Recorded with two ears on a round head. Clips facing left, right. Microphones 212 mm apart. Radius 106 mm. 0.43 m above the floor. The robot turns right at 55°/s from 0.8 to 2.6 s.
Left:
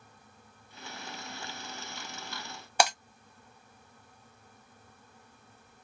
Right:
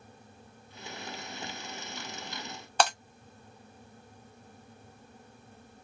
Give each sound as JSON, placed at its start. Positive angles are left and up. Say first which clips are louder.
{"t": 2.8, "sound": "breaking glass", "louder": "even", "side_deg": 10, "distance_m": 1.1}